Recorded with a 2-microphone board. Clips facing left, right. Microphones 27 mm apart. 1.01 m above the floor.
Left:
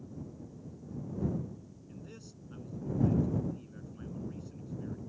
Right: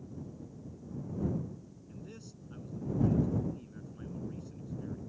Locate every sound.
1.9 s a man speaking: centre (ahead or behind)